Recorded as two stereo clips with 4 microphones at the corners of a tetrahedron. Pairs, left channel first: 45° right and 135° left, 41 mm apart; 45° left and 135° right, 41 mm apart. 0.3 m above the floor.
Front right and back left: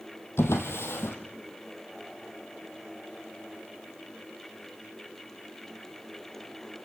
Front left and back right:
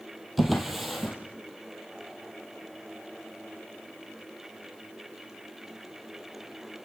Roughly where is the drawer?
Ahead right.